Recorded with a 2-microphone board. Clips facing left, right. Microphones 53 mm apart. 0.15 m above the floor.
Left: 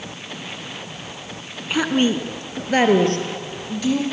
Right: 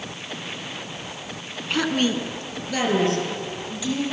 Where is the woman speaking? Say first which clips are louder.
Left 3 dB; 10° left (ahead or behind), 1.3 m; by 4.0 s 55° left (ahead or behind), 4 m.